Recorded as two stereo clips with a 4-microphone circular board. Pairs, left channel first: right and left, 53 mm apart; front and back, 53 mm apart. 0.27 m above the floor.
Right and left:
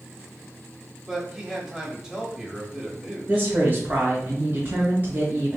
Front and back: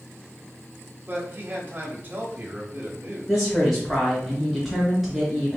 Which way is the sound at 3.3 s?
85° left.